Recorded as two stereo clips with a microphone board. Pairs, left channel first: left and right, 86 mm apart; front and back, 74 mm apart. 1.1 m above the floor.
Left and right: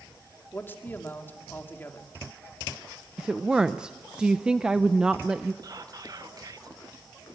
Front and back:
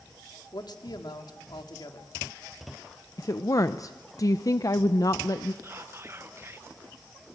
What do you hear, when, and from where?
0.5 s a man speaking: 25° left, 2 m
3.2 s a woman speaking: 15° right, 0.6 m
5.6 s whispering: 125° right, 1.2 m